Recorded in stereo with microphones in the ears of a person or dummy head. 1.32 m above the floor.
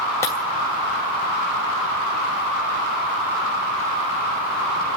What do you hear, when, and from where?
0.2 s breaking glass: 15° left (ahead or behind), 2.5 m